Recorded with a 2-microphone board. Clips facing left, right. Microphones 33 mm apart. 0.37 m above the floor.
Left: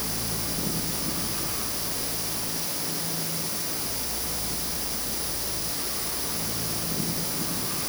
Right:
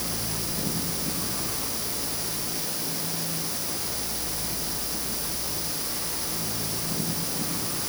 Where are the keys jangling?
No keys jangling in this recording.